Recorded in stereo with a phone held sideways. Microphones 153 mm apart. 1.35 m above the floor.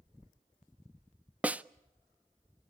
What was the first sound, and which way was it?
A snare drum, 10° right (ahead or behind).